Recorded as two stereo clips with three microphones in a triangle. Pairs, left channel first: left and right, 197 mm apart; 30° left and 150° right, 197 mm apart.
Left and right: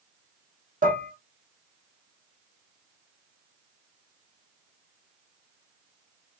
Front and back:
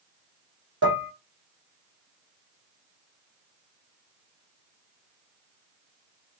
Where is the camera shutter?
No camera shutter in this recording.